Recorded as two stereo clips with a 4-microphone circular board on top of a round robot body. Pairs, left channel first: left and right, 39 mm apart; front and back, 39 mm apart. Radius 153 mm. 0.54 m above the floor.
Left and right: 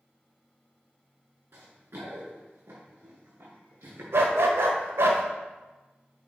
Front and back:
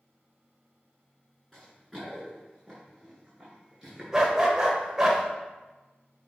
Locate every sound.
1.5 s running footsteps: 85° right, 4 m; by 4.0 s 95° right, 5.5 m
4.1 s a dog barking: 105° right, 0.9 m